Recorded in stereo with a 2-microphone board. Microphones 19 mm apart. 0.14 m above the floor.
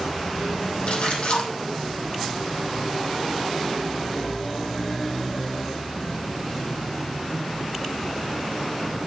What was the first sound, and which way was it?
A splash, 50° left (ahead or behind).